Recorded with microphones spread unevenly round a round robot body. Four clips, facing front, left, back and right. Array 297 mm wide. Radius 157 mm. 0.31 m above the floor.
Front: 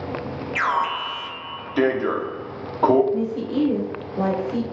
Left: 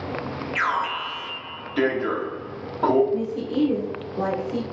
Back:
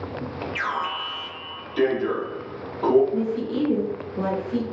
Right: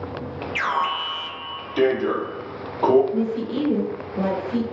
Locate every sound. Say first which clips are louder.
0.6 s an alarm: right 2 dB, front 6 dB; 10° right, 0.7 m
3.1 s a woman speaking: right 1 dB, front 1 dB; 15° right, 1.0 m